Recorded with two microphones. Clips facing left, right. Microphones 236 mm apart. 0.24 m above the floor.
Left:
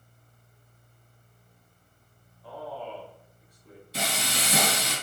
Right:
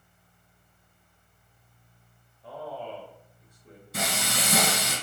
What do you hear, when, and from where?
2.4 s a man speaking: 25° right (ahead or behind), 1.3 m
3.9 s frying: 55° right (ahead or behind), 2.5 m